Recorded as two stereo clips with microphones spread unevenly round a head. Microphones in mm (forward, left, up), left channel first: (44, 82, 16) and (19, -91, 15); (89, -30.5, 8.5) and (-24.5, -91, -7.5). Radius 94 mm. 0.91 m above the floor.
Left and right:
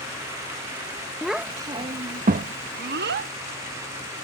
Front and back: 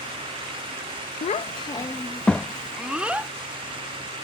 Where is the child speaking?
5° right; by 3.3 s 75° right.